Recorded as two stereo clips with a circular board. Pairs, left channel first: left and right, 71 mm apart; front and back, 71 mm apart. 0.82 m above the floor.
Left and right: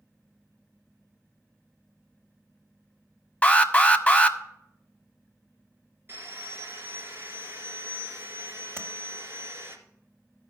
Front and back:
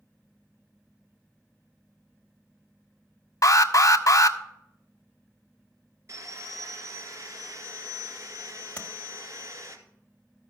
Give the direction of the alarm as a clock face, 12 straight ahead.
11 o'clock.